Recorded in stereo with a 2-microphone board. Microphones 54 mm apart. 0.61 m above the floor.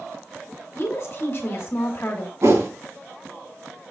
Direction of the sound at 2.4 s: 60° right (ahead or behind).